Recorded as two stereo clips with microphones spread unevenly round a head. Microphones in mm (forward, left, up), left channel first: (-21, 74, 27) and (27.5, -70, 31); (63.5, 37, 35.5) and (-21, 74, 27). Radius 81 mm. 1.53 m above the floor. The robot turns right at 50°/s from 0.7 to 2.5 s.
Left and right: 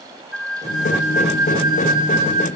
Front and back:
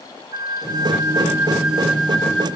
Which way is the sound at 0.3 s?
165° right.